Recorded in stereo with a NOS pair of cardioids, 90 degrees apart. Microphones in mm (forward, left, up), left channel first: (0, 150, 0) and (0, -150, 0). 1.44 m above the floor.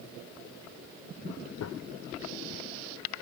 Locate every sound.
1.6 s a gunshot: 60° left